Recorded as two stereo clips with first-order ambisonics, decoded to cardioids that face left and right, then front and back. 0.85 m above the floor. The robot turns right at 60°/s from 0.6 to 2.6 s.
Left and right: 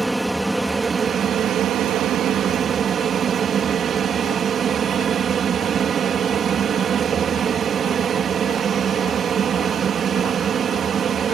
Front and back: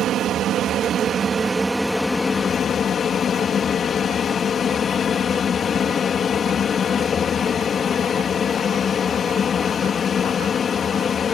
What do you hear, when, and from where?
0.0 s an aircraft: 170° right; by 11.3 s 50° right